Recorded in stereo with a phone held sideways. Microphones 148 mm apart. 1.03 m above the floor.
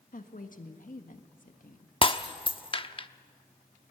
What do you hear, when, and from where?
0.1 s a woman speaking: 65° left (ahead or behind), 1.6 m
2.0 s breaking glass: 35° left (ahead or behind), 0.7 m